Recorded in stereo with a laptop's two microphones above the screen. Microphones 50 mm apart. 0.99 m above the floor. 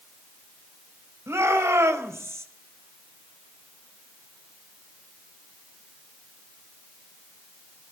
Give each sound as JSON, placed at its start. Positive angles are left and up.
{"t": 1.3, "sound": "a shout", "side_deg": -65, "distance_m": 4.5}